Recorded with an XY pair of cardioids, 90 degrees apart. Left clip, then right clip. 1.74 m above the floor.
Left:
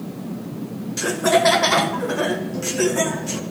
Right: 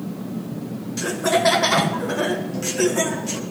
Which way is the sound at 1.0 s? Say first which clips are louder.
Left 2 dB; 30° left.